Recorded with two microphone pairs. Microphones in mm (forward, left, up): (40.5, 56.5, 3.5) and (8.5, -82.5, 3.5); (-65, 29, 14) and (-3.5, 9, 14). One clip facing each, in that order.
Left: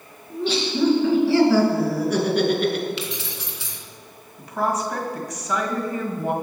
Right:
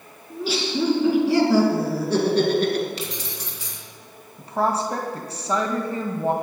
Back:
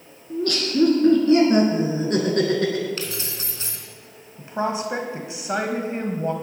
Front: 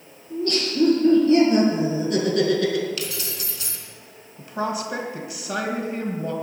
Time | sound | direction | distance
0.3 | laughter | 170° left | 4 m
3.0 | keys jangling | 145° right | 2 m
4.4 | a woman speaking | 145° right | 1.5 m